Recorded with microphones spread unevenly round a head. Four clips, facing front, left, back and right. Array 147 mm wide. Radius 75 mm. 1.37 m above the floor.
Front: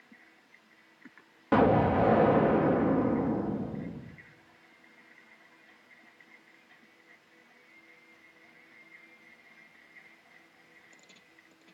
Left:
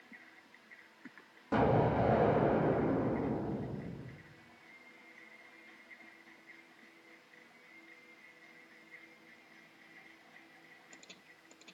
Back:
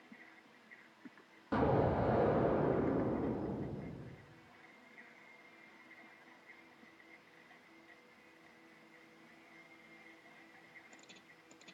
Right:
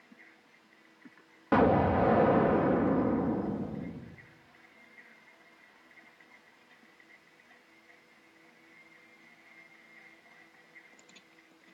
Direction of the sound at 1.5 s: 30° right.